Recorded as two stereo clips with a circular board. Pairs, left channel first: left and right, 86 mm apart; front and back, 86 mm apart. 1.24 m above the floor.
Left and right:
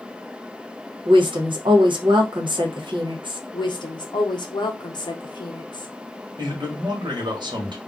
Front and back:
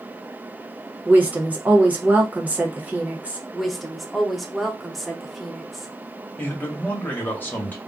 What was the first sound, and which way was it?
A woman speaking, 110° right.